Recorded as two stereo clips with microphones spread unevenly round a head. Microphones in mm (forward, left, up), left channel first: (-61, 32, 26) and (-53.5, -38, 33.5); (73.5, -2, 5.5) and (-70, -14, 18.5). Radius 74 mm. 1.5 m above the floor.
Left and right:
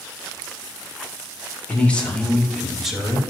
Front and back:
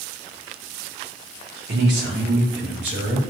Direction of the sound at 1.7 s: 165° left.